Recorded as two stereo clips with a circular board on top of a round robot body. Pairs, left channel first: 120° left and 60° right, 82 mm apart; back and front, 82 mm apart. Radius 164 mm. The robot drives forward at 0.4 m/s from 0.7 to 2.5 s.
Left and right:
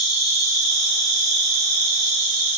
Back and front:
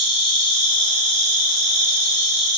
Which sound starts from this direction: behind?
An insect, at 0.0 s.